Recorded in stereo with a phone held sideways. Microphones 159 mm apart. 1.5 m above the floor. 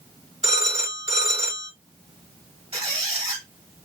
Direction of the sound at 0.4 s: 45° right (ahead or behind).